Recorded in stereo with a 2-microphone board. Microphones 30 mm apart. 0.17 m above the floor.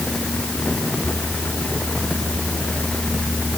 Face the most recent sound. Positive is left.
No sound to turn to.